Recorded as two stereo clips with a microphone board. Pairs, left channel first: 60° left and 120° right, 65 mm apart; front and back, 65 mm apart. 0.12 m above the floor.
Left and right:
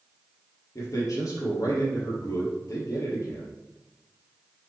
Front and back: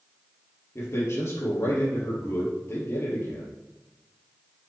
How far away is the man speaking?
About 3 m.